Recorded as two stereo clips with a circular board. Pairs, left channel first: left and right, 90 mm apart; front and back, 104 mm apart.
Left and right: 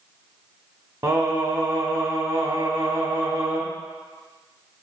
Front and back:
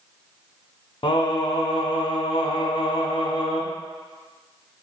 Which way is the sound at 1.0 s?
35° right.